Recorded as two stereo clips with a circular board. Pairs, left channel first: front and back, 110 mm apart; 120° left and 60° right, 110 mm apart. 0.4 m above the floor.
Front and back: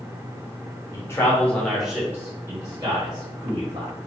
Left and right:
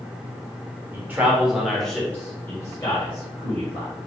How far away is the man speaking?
About 0.9 m.